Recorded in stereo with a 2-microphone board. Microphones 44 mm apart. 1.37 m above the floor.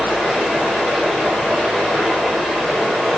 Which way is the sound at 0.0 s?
10° left (ahead or behind).